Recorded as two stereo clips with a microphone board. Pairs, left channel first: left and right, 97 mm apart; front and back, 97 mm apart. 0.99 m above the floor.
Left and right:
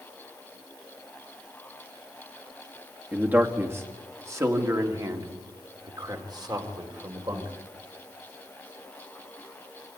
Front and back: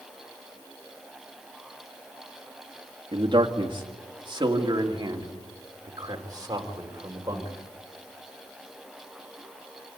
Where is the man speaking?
160° right, 2 m; by 7.5 s 130° right, 4.5 m.